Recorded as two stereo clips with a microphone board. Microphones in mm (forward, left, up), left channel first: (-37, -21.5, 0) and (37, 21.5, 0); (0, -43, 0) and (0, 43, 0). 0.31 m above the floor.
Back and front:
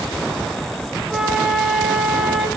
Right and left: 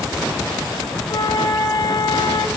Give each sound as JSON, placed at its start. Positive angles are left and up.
{"t": 1.1, "sound": "a flute", "azimuth_deg": -50, "distance_m": 0.6}